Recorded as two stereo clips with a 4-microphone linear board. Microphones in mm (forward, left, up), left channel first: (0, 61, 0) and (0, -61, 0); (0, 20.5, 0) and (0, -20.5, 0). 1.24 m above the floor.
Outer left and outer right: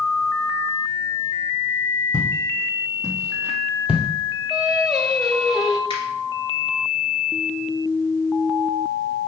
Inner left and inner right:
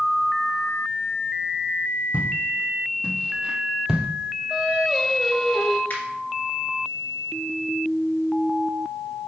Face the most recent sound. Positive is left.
turn(degrees=45)  # may be behind; listen again after turning